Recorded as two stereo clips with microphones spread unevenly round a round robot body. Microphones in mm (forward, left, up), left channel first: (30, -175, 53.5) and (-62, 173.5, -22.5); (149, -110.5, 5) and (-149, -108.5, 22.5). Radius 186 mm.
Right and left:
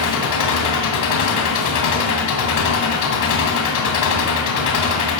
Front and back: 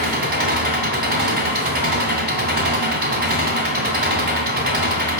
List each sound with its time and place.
0.0 s an engine running: 120° right, 2.5 m